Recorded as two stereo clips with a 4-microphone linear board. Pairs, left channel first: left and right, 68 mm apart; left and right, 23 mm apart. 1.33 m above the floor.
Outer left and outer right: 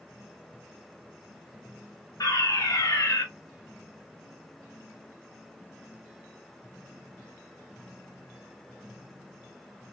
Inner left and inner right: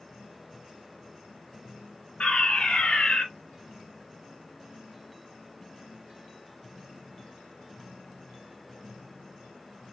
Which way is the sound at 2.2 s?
60° left (ahead or behind).